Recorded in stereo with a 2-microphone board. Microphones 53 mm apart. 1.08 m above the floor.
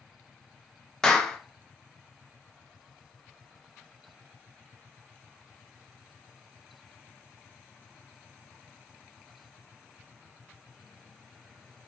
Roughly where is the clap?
Centre.